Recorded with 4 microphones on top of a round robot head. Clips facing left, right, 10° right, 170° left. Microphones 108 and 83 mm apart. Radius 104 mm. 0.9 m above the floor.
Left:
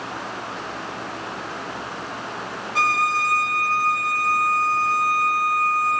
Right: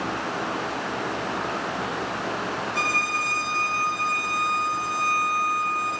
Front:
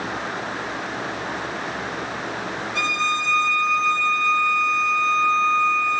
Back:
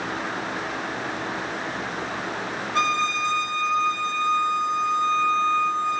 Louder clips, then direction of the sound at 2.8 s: Left 5 dB, back 2 dB; 120° left.